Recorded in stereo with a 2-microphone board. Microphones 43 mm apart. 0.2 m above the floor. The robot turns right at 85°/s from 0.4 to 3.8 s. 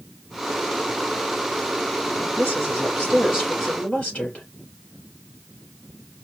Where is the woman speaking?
95° right, 3.5 m; by 4.5 s 25° left, 3.5 m.